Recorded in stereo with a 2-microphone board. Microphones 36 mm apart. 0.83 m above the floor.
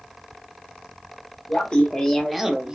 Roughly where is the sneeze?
No sneeze in this recording.